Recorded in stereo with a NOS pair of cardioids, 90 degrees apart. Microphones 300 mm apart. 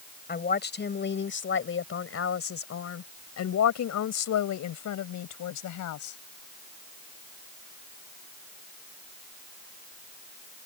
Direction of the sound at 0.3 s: 30° left.